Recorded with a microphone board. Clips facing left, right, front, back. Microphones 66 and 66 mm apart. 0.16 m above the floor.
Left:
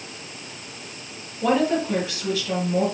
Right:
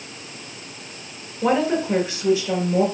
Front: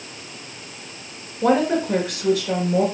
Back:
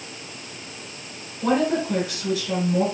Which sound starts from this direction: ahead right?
A woman speaking, at 1.4 s.